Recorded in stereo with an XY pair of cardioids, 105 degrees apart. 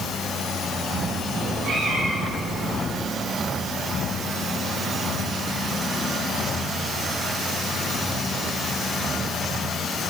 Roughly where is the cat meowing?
Ahead right.